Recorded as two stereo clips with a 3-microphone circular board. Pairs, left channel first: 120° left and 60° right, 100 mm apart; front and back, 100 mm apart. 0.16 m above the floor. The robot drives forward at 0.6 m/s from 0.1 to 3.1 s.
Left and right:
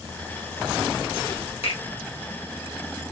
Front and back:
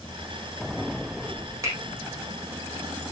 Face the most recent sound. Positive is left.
turn(degrees=130)